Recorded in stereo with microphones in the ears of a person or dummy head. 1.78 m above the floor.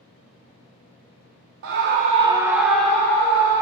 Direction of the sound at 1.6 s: 65° right (ahead or behind).